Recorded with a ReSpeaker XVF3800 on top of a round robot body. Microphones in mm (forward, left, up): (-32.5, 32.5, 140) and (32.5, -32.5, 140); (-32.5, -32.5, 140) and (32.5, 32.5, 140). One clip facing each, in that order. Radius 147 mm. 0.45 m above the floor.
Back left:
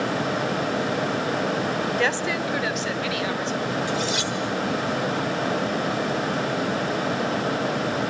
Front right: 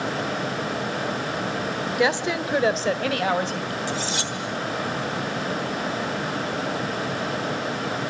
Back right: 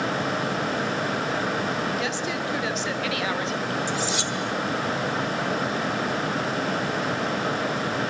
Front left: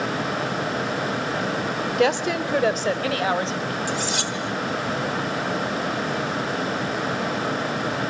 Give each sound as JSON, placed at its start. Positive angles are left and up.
{"t": 2.0, "sound": "a woman speaking", "azimuth_deg": 35, "distance_m": 2.5}
{"t": 3.9, "sound": "cutlery clinking", "azimuth_deg": 10, "distance_m": 2.5}